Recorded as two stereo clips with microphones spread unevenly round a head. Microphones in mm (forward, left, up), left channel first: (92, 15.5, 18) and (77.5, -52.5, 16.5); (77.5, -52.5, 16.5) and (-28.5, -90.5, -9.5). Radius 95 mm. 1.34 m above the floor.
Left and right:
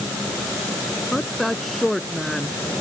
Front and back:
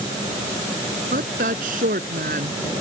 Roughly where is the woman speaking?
Behind.